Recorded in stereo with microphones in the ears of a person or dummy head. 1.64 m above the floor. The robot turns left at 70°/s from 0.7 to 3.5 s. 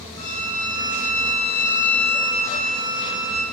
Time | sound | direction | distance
0.2 | a violin | 100° left | 0.5 m